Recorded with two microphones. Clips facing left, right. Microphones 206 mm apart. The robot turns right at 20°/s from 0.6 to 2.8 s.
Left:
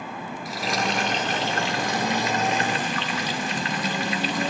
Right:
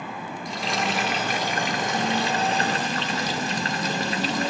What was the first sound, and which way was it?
Frying, 175° left.